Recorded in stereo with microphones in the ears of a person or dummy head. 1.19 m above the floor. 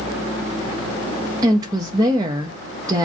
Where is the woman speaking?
20° right (ahead or behind), 0.6 m.